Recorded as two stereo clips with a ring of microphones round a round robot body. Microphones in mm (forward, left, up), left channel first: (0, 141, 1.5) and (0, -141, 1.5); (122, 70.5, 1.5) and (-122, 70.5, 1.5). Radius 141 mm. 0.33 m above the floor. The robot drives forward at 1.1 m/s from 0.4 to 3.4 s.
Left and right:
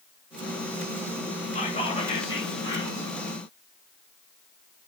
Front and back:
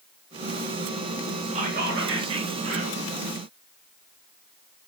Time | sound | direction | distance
1.6 | whispering | 140° left | 1.2 m